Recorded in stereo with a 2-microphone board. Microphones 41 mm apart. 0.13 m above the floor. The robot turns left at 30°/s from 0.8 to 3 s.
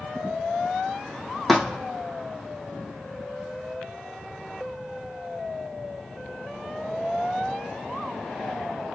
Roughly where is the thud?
Centre.